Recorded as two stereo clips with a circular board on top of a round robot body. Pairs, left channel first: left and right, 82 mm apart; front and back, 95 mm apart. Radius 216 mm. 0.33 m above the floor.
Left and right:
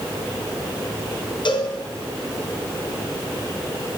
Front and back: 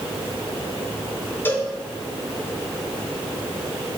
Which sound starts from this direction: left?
A cowbell, at 1.4 s.